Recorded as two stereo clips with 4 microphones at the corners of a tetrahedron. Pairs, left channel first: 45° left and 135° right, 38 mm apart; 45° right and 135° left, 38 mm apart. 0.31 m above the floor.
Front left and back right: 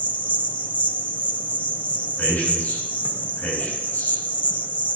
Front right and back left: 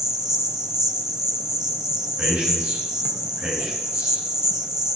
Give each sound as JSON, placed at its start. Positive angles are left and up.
{"t": 0.0, "sound": "an insect", "azimuth_deg": 65, "distance_m": 0.7}
{"t": 2.2, "sound": "a man speaking", "azimuth_deg": 85, "distance_m": 4.5}